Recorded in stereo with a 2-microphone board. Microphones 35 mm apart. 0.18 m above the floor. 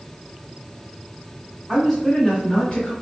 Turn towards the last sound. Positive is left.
turn(degrees=25)  # may be behind; listen again after turning